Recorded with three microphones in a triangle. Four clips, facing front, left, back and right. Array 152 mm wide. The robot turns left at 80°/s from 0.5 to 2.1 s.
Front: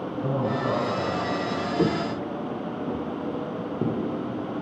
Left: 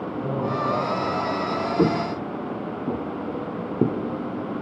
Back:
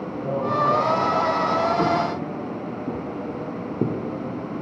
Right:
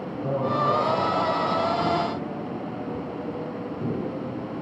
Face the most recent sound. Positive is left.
turn(degrees=110)